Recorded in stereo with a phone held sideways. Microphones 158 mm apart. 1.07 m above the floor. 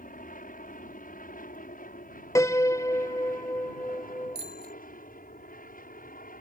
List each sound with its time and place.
0.0 s an aircraft: 60° left (ahead or behind)
2.4 s a piano: 20° left (ahead or behind)
4.3 s a bicycle bell: 85° right